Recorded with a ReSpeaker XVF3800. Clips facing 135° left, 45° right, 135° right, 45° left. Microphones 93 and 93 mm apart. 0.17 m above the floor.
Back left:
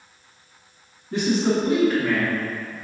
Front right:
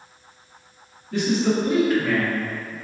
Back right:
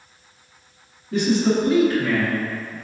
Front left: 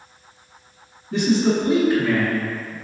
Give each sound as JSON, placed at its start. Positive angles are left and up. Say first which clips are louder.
{"t": 1.1, "sound": "a man speaking", "louder": "even, even", "azimuth_deg": 80, "distance_m": 1.5}